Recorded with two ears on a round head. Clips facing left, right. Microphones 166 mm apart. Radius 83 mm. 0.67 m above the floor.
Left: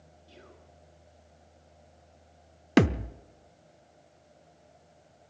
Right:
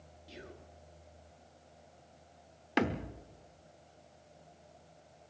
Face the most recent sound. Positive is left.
turn(degrees=60)  # may be behind; listen again after turning